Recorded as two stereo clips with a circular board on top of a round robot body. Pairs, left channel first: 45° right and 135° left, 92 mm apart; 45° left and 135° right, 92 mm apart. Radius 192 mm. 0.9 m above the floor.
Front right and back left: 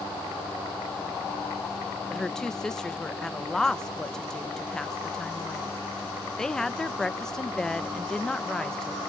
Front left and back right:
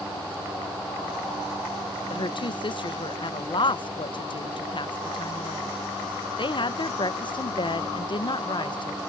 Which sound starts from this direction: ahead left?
A woman speaking, at 2.1 s.